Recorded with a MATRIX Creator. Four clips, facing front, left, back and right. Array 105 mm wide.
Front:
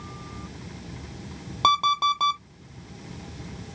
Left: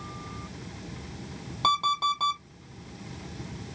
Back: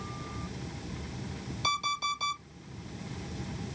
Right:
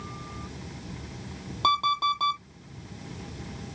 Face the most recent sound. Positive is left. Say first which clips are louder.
# right 1 dB, front 11 dB
turn(degrees=0)